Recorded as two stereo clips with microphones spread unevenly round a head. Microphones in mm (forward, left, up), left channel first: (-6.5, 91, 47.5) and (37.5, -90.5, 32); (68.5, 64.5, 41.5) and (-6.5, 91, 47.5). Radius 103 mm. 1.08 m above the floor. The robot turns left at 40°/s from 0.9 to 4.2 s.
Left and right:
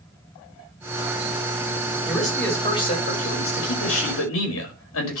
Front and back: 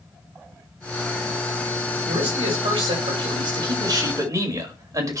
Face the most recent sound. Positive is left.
turn(degrees=115)